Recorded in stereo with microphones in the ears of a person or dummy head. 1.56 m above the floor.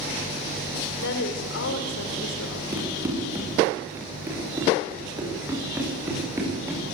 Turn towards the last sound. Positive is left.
turn(degrees=-20)  # may be behind; listen again after turning